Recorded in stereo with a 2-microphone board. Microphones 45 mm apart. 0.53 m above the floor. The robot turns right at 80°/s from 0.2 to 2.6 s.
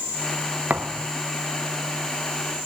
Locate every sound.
0.7 s a thud: 35° right (ahead or behind); by 1.1 s 70° right (ahead or behind)